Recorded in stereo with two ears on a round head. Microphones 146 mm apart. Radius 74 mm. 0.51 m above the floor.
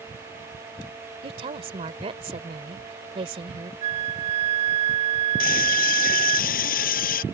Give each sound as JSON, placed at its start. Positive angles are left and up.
{"t": 1.2, "sound": "a woman speaking", "side_deg": -35}
{"t": 3.8, "sound": "a flute", "side_deg": -40}
{"t": 5.4, "sound": "a scream", "side_deg": 55}